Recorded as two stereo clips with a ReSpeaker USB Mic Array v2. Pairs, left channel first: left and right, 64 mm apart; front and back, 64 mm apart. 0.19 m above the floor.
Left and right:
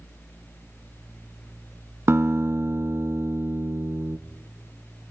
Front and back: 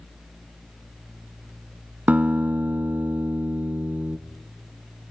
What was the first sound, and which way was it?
A guitar, 125° right.